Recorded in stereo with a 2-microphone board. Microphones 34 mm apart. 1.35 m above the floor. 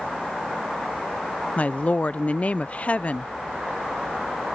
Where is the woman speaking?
45° left (ahead or behind).